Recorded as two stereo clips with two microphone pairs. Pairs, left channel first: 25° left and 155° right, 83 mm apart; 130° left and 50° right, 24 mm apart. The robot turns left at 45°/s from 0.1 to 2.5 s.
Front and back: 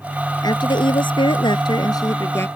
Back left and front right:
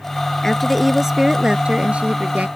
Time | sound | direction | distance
0.4 | a woman speaking | 55° left | ?